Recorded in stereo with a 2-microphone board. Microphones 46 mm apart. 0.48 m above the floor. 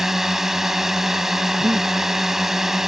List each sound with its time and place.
0.0 s a drone: 10° right (ahead or behind)
1.6 s breathing: 70° right (ahead or behind)